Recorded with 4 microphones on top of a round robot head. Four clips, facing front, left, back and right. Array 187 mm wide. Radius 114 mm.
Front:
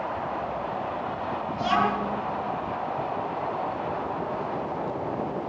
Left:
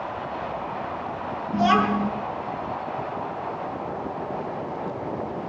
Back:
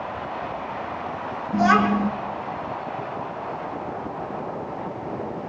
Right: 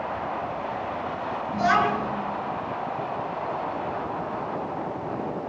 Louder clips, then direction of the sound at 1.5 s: Left 2 dB, back 6 dB; 150° left.